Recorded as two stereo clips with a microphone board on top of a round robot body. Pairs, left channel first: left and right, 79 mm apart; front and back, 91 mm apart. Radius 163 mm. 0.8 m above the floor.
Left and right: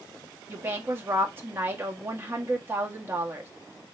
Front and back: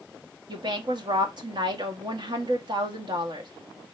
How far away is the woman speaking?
About 1.6 m.